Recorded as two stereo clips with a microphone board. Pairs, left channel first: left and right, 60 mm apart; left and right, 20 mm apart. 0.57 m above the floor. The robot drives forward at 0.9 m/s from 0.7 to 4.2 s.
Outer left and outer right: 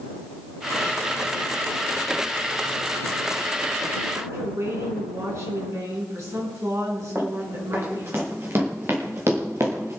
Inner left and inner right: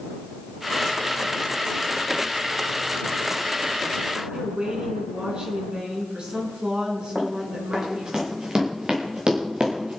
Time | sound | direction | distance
4.2 | a woman speaking | 60° right (ahead or behind) | 6 m
7.2 | running footsteps | 40° right (ahead or behind) | 5.5 m